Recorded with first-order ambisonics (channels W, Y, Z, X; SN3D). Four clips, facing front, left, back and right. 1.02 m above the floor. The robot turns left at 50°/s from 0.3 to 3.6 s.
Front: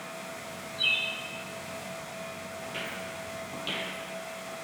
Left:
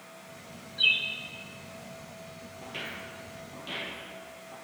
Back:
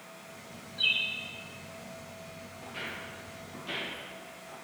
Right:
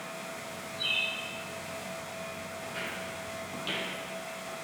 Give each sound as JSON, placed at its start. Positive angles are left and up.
{"t": 0.8, "sound": "a bird", "azimuth_deg": 105, "distance_m": 0.8}
{"t": 2.6, "sound": "footsteps", "azimuth_deg": 65, "distance_m": 1.5}